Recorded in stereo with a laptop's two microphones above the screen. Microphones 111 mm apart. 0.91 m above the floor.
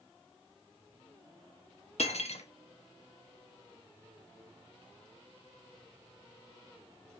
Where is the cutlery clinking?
75° left (ahead or behind), 0.6 m.